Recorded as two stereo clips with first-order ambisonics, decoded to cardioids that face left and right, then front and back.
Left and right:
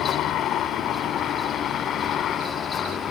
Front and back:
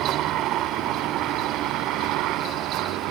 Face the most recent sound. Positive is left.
turn(degrees=150)